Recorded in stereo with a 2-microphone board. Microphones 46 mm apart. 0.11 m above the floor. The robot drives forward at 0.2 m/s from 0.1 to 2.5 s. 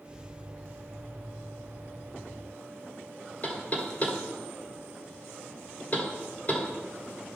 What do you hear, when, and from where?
3.4 s knocking: 35° left (ahead or behind), 1.8 m